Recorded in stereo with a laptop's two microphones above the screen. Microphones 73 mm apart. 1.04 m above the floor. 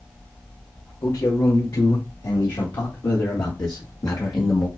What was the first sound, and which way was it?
A man speaking, 75° left (ahead or behind).